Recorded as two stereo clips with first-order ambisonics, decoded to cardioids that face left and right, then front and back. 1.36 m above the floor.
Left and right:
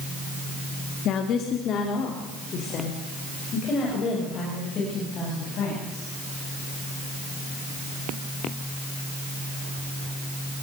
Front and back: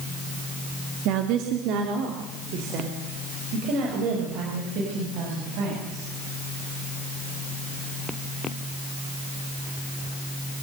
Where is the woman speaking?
140° left, 2 m; by 6.0 s 150° left, 9.5 m.